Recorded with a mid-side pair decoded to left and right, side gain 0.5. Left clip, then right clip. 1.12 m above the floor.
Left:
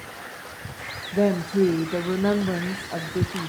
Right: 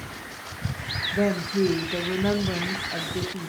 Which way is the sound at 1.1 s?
20° left.